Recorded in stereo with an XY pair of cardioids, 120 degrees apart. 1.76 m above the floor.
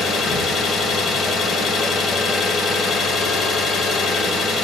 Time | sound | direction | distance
0.0 | an engine running | 60° left | 1.7 m